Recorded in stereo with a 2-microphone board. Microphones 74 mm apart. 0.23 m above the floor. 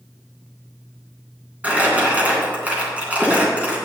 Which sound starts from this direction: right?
Crumpling, at 1.6 s.